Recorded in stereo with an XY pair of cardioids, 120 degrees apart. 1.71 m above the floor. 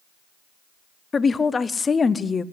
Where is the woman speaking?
25° left, 0.8 m.